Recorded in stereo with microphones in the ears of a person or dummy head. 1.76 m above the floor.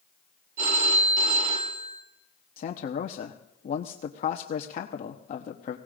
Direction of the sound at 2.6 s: 50° left (ahead or behind).